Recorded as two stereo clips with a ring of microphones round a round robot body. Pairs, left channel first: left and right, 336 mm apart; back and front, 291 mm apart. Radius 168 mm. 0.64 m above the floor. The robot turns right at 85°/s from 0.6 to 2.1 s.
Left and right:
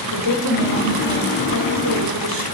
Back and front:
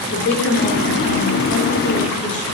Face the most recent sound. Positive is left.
turn(degrees=-105)